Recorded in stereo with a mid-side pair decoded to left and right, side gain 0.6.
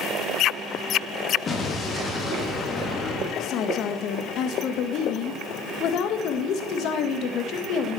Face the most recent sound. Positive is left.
turn(degrees=60)